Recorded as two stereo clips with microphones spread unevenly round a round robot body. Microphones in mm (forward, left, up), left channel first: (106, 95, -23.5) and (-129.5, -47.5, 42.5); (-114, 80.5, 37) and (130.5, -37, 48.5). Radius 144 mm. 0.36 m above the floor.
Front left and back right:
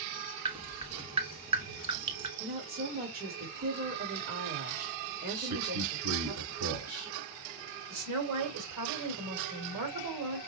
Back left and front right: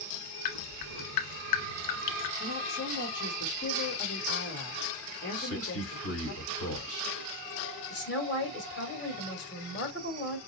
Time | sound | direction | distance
0.5 | dripping | 140° left | 0.8 m
2.4 | a woman speaking | 155° left | 1.7 m
5.3 | a man speaking | straight behind | 2.5 m
7.9 | a woman speaking | 170° right | 2 m